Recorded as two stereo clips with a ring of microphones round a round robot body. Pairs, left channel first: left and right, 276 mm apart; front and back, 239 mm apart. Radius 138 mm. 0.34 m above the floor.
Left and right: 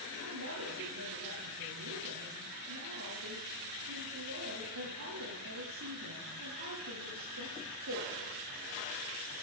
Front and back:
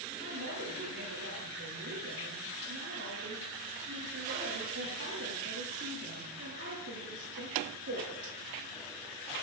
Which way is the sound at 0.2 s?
130° right.